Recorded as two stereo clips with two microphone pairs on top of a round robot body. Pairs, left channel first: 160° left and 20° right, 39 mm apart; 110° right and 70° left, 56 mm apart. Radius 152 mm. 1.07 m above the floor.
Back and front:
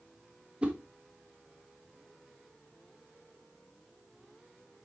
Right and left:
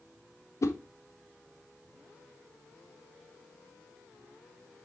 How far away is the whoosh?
About 1.3 m.